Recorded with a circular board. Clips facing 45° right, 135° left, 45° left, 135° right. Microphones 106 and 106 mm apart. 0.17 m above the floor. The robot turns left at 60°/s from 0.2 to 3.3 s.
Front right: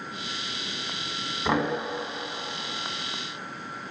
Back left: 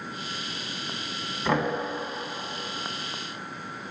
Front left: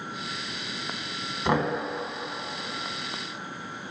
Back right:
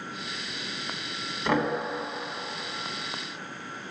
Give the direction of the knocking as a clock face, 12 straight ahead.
11 o'clock.